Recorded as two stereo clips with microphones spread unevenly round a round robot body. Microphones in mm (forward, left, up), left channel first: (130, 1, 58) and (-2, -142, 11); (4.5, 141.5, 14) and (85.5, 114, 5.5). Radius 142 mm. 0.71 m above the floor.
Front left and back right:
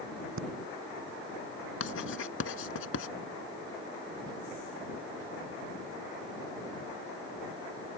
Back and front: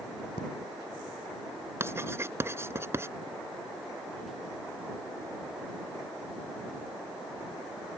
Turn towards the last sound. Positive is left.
turn(degrees=40)